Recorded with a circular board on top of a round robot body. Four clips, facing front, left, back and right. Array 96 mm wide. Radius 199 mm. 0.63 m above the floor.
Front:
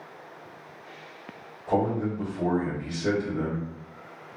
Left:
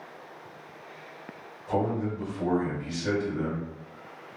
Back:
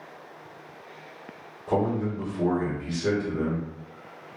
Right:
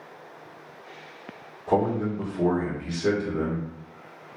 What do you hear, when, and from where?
1.7 s a man speaking: 105° right, 1.8 m